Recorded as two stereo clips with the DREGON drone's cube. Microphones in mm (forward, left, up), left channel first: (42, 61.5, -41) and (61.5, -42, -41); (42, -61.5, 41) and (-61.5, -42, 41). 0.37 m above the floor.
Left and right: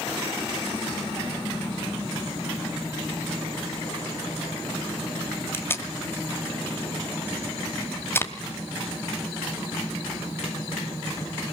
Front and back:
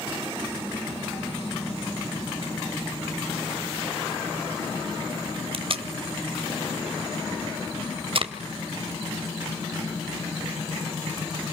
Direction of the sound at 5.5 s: 165° left.